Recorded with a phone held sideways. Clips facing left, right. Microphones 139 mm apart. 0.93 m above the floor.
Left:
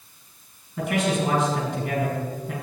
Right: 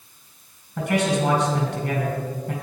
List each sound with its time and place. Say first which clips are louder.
0.8 s a man speaking: right 2 dB; 85° right, 5 m